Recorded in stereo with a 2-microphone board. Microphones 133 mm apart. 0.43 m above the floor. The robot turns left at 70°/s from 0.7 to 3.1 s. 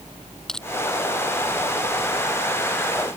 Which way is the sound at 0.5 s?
5° left (ahead or behind).